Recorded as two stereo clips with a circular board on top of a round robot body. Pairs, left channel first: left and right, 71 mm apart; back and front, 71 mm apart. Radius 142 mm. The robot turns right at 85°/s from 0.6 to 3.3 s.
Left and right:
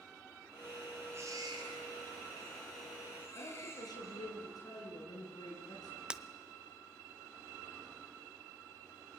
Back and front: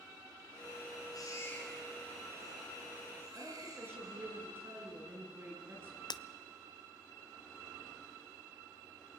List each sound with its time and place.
1.1 s a baby crying: 150° right, 5 m; by 4.2 s 35° left, 5 m
3.4 s a woman speaking: 60° left, 8.5 m
6.1 s breaking glass: 170° right, 0.7 m